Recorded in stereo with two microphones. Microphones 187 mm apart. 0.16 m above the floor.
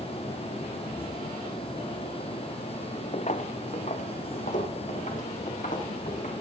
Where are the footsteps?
40° left (ahead or behind), 0.7 m; by 6.3 s 45° left (ahead or behind), 4 m.